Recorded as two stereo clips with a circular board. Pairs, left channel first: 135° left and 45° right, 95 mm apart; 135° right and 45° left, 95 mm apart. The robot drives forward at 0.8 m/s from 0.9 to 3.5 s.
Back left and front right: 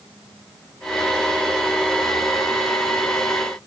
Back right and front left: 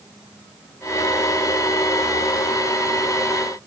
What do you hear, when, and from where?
Only background noise.